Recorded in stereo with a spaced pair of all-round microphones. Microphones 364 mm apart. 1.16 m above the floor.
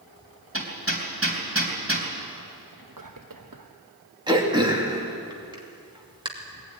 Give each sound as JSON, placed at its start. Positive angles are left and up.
{"t": 0.5, "sound": "hammering", "side_deg": -35, "distance_m": 3.5}
{"t": 2.7, "sound": "whispering", "side_deg": -60, "distance_m": 1.0}
{"t": 4.3, "sound": "throat clearing", "side_deg": -10, "distance_m": 2.5}